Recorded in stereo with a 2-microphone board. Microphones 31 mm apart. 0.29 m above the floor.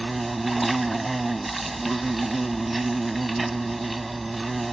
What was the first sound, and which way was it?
An insect, 5° right (ahead or behind).